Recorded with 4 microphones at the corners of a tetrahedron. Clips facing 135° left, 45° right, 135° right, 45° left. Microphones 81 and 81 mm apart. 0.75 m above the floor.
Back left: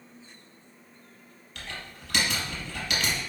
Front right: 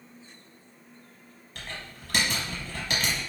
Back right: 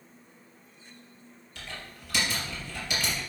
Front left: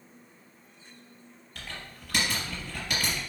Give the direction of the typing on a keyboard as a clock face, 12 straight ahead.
12 o'clock.